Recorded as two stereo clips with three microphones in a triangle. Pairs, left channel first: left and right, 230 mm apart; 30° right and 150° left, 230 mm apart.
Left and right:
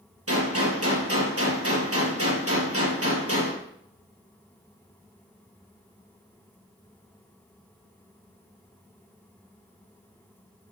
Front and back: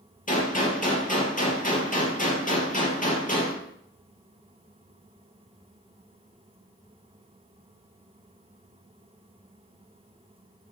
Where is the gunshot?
85° right, 4 m.